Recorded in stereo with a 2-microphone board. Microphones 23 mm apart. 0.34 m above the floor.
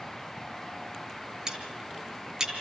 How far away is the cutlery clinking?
About 4 m.